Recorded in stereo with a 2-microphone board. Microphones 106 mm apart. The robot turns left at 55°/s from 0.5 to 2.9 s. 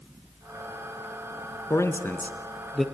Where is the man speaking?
30° left (ahead or behind), 1.3 m; by 2.9 s centre (ahead or behind), 1.3 m.